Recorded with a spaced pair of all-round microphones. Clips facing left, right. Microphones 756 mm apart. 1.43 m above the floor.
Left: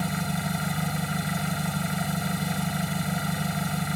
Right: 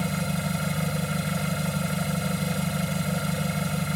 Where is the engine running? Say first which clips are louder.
Right 1 dB; 10° right (ahead or behind).